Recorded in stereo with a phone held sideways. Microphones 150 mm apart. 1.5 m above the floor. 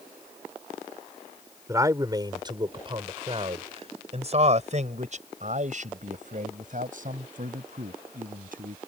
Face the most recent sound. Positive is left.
turn(degrees=-70)  # may be behind; listen again after turning